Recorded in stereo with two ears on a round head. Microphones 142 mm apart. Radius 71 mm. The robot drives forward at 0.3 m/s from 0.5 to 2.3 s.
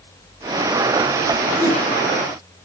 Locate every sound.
1.6 s a whoosh: 55° left (ahead or behind), 1.7 m; by 1.8 s 60° left (ahead or behind), 1.7 m